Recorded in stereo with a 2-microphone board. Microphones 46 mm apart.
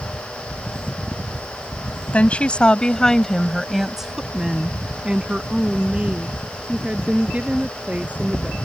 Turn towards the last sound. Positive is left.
turn(degrees=-25)  # may be behind; listen again after turning